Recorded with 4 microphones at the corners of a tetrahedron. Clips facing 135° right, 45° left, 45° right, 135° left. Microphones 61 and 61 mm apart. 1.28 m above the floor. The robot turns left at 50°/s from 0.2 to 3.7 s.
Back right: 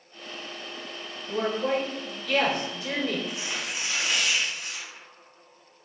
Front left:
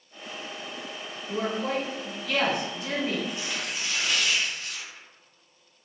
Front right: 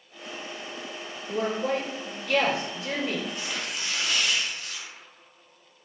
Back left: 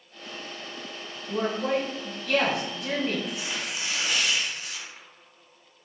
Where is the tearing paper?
155° right, 0.7 m; by 5.1 s 175° right, 0.7 m.